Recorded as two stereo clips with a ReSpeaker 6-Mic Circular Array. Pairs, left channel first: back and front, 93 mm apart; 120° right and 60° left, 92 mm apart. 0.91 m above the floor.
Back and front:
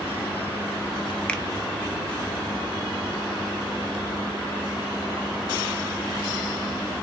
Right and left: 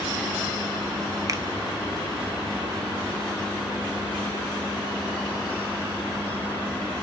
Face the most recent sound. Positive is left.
turn(degrees=105)